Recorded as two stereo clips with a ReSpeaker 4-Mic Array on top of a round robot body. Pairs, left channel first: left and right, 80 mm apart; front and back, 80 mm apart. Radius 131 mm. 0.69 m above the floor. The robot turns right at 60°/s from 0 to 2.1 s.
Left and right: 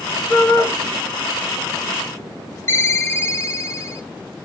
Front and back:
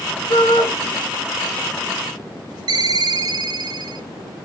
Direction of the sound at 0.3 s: 15° left.